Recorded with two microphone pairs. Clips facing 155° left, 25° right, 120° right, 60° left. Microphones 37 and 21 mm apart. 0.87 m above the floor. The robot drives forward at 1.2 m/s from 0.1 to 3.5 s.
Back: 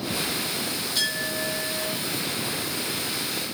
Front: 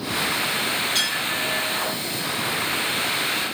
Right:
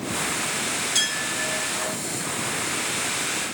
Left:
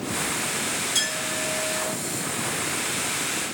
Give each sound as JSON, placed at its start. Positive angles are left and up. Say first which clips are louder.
{"t": 0.9, "sound": "a clink", "louder": "front 4 dB, right 3 dB", "azimuth_deg": -45, "distance_m": 5.0}